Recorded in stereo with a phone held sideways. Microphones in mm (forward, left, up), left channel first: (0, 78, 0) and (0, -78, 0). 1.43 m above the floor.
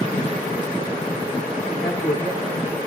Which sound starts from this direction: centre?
A man speaking, at 1.7 s.